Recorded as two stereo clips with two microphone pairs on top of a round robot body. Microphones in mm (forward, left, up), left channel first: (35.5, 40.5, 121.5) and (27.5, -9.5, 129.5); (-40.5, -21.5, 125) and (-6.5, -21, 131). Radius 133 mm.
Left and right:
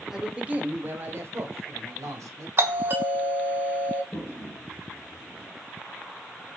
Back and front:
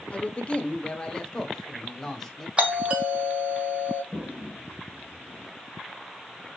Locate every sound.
0.1 s a man speaking: 175° left, 1.2 m; by 2.5 s 105° right, 2.5 m
2.6 s a doorbell: 65° right, 3 m
4.1 s a toilet flushing: 125° left, 3 m